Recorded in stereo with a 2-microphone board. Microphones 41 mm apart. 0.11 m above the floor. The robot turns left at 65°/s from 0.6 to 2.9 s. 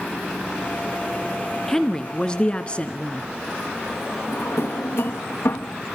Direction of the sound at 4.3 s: 55° left (ahead or behind).